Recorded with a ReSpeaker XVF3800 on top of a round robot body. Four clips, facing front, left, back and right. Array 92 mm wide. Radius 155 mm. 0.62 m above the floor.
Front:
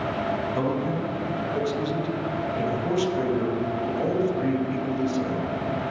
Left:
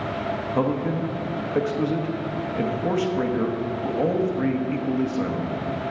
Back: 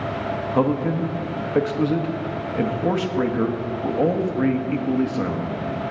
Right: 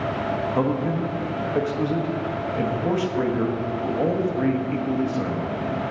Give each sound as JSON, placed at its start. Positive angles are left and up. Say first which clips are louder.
{"t": 0.6, "sound": "a man speaking", "louder": "left 1 dB, back 5 dB", "azimuth_deg": 180, "distance_m": 1.3}